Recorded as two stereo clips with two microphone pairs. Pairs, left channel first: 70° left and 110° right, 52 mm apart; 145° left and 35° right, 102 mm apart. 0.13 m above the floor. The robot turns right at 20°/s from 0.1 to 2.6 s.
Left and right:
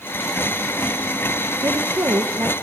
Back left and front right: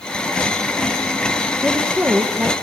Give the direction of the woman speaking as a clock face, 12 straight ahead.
4 o'clock.